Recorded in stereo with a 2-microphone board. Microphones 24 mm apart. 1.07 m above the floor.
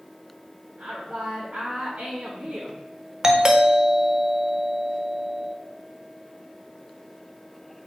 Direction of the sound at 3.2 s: 30° right (ahead or behind).